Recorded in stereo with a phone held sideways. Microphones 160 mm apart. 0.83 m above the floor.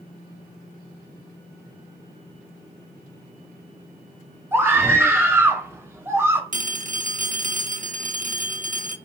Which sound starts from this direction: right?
A phone ringing, at 6.5 s.